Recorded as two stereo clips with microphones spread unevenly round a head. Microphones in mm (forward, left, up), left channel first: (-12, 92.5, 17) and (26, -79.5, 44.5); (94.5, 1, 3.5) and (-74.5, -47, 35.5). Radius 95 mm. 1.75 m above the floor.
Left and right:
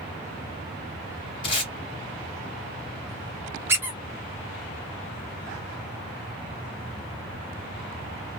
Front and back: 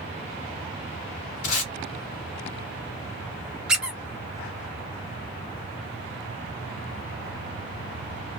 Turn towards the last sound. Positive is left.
turn(degrees=-110)